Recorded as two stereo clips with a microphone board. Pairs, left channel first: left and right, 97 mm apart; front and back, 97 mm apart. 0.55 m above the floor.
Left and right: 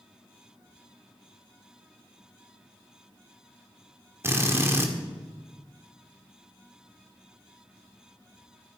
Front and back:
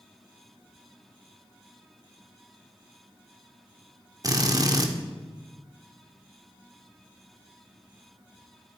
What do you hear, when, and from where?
4.2 s a drill: 145° right, 1.7 m